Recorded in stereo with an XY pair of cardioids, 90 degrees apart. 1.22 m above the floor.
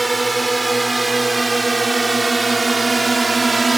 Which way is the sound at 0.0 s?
15° right.